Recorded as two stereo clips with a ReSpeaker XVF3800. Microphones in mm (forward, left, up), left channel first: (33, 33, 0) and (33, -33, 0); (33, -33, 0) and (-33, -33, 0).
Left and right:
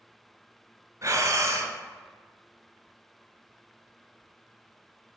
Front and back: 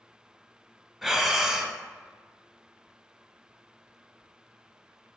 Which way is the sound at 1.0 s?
90° right.